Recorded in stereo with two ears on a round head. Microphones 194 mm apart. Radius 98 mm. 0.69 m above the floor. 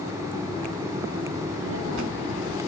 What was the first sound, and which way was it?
A child speaking, 65° right (ahead or behind).